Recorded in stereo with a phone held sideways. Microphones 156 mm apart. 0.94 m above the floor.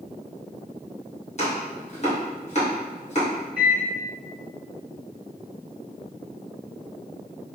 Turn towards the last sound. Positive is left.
turn(degrees=-5)  # may be behind; listen again after turning